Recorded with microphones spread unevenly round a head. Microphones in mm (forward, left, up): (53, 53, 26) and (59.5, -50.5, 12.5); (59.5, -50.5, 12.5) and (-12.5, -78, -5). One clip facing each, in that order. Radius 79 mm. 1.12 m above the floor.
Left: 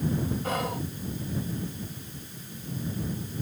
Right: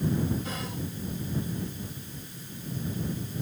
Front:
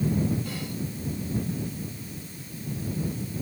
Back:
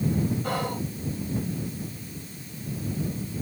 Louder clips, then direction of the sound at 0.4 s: Left 6 dB, back 6 dB; 150° left.